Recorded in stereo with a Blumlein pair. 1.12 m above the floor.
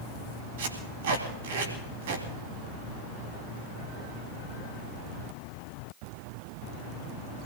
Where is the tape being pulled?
55° right, 3 m.